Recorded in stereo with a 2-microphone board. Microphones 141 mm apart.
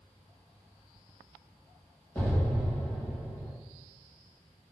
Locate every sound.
2.1 s an explosion: 10° left (ahead or behind), 1.6 m